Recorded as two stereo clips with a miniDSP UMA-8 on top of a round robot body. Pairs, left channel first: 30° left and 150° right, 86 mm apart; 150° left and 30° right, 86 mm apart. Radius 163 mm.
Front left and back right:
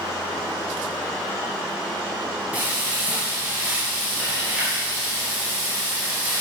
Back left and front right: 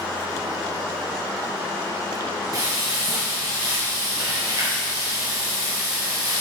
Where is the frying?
75° right, 2.5 m.